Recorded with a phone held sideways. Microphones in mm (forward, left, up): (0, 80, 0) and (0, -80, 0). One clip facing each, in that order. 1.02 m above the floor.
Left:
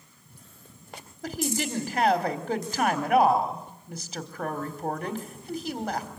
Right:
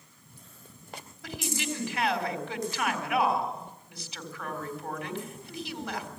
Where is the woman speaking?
50° left (ahead or behind), 3.5 m.